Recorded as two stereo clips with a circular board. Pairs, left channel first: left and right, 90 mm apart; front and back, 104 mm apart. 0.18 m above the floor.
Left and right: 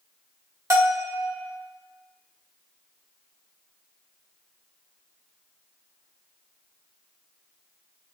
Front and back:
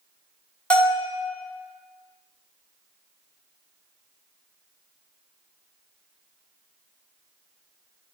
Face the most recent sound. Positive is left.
turn(degrees=-70)